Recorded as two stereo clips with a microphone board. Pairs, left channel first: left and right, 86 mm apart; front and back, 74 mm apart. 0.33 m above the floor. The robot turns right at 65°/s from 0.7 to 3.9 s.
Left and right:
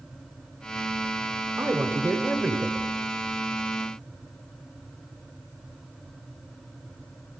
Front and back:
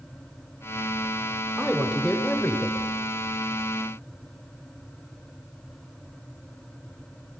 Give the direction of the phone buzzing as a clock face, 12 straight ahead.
No phone buzzing in this recording.